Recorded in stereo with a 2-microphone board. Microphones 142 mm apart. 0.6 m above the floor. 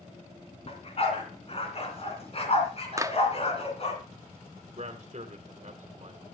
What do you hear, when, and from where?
0.7 s a dog barking: 45° left (ahead or behind), 2.5 m
3.0 s a clap: 25° right (ahead or behind), 0.5 m
4.8 s a man speaking: 55° right (ahead or behind), 1.7 m